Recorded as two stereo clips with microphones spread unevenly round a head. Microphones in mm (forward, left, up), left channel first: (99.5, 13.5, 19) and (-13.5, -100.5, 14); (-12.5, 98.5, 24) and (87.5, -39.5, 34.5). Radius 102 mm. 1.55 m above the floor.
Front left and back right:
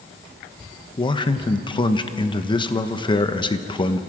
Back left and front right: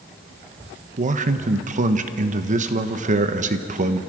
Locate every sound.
1.0 s a man speaking: 15° right, 1.2 m